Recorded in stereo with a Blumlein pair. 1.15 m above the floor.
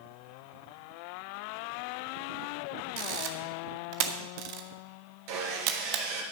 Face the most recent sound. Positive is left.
turn(degrees=-45)